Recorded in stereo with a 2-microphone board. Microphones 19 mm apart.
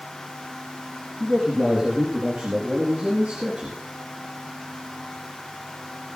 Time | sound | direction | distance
1.2 | a man speaking | 75° right (ahead or behind) | 5.5 m